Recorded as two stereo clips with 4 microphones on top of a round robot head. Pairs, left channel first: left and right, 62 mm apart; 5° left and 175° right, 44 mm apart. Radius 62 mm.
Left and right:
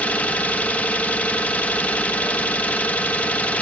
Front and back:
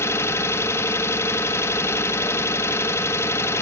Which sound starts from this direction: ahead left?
An engine running, at 0.0 s.